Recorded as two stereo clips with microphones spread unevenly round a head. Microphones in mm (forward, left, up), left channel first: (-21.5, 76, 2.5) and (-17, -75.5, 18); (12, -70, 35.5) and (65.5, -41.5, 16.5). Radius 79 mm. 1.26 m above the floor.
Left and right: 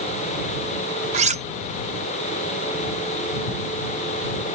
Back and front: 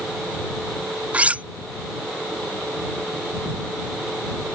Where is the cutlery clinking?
50° right.